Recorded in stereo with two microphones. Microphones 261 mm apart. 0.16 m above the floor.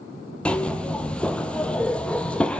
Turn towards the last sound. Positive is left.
turn(degrees=5)  # may be behind; listen again after turning